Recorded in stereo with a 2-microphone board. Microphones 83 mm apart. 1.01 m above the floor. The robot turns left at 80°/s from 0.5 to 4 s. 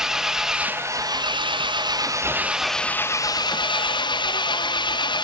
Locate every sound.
0.0 s an engine running: 5° right, 0.9 m; by 5.2 s 75° left, 0.9 m